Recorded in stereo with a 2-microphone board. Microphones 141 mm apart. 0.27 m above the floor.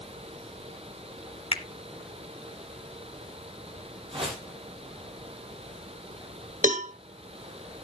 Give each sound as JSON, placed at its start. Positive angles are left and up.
{"t": 1.5, "sound": "a finger snap", "side_deg": 40, "distance_m": 1.1}
{"t": 4.1, "sound": "a whoosh", "side_deg": -40, "distance_m": 4.0}
{"t": 6.6, "sound": "a cowbell", "side_deg": -65, "distance_m": 1.5}